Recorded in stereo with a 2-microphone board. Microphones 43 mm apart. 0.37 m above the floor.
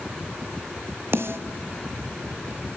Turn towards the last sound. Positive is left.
turn(degrees=-65)  # may be behind; listen again after turning